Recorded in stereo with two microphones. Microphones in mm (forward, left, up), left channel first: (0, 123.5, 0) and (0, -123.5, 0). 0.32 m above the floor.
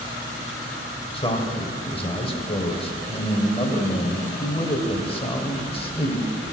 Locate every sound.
1.1 s a man speaking: 20° left (ahead or behind), 1.0 m